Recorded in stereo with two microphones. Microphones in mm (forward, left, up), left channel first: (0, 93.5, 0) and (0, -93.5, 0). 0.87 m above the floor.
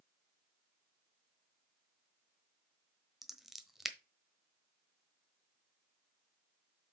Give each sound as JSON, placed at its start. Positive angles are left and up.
{"t": 3.2, "sound": "scissors", "side_deg": 0, "distance_m": 1.0}